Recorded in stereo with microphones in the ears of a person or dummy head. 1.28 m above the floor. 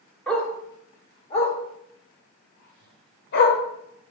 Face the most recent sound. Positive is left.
turn(degrees=60)  # may be behind; listen again after turning